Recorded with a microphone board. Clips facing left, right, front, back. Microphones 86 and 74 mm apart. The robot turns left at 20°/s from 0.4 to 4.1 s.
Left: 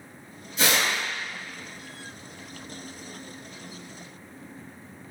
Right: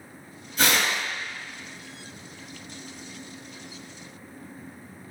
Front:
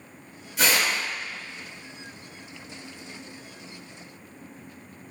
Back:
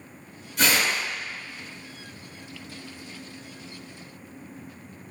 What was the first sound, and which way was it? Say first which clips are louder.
Tearing paper: right 1 dB, even; 85° right.